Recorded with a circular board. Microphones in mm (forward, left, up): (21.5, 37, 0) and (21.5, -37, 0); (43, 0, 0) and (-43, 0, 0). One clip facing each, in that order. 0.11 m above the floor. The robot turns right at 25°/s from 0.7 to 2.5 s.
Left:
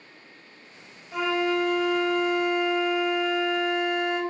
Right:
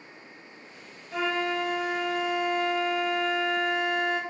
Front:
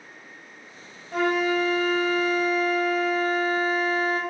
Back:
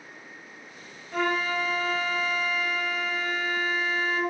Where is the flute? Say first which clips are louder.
Left 3 dB, front 4 dB; 5° left, 1.3 m; by 4.2 s 40° left, 1.3 m.